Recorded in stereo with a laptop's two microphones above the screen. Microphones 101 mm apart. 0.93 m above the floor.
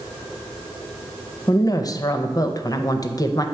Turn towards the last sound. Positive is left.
turn(degrees=35)  # may be behind; listen again after turning